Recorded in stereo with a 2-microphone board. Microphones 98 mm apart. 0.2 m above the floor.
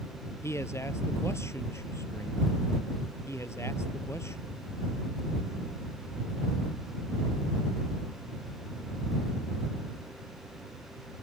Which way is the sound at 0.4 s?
30° left (ahead or behind).